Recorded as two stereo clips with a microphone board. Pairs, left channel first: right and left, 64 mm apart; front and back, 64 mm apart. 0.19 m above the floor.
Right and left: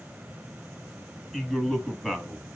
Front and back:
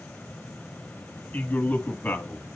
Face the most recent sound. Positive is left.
turn(degrees=-5)